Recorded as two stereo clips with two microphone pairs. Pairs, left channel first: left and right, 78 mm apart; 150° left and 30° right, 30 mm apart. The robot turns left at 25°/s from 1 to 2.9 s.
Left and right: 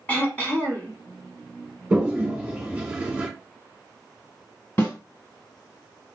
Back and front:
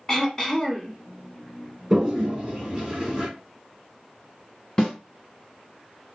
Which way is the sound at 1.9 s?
20° right.